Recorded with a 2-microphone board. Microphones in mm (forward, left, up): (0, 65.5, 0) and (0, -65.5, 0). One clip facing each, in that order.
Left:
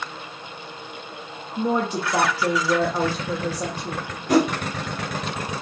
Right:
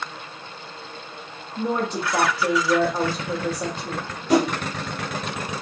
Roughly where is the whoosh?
Left.